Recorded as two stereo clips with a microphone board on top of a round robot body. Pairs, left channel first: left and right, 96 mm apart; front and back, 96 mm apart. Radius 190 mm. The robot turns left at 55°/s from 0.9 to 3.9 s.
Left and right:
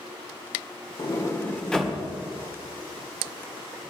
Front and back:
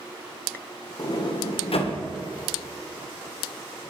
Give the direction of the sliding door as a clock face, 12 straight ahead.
10 o'clock.